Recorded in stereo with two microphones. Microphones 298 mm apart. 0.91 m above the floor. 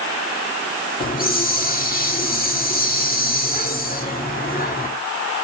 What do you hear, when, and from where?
1.0 s a hiss: 30° left (ahead or behind), 1.6 m